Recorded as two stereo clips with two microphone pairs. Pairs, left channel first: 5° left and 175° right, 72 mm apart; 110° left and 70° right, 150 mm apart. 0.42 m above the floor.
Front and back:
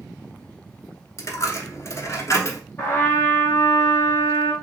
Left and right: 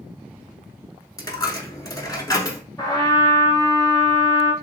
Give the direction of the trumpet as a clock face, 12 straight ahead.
10 o'clock.